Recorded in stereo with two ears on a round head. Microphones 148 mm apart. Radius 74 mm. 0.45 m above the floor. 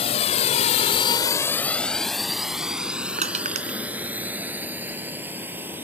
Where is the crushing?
45° right (ahead or behind).